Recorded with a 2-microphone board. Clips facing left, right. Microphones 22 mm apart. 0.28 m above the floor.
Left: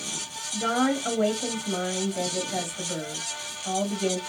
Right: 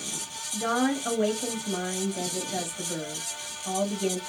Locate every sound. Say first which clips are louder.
0.5 s a woman speaking: left 2 dB; 20° left (ahead or behind), 1.1 m